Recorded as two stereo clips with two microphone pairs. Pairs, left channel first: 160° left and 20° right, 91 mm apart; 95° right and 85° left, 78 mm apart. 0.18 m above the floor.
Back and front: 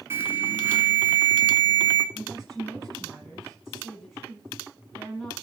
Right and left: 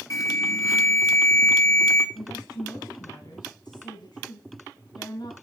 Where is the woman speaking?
110° right, 6.5 m.